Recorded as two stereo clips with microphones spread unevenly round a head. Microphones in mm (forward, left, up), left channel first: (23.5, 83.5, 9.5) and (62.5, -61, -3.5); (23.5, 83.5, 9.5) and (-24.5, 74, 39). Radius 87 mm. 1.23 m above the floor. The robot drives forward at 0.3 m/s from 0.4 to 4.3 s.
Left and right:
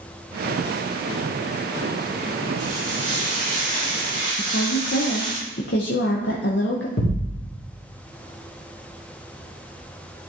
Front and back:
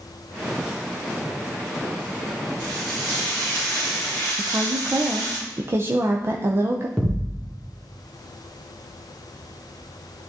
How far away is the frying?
About 2.5 m.